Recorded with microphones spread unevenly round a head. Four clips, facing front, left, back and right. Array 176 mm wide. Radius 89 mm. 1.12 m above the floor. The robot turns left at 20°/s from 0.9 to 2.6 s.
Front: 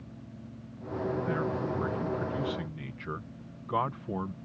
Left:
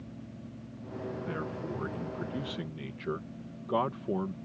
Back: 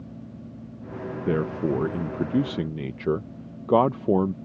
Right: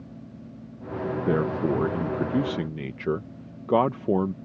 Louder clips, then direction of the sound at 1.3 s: Right 12 dB, back 6 dB; 125° right.